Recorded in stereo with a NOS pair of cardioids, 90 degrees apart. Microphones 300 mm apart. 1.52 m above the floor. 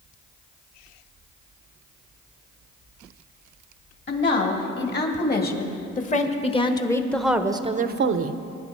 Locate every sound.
4.1 s a woman speaking: 40° left, 3 m; by 8.4 s 65° right, 0.9 m